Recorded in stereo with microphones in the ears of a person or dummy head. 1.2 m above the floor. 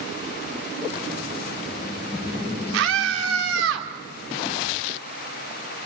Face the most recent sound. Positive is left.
turn(degrees=-85)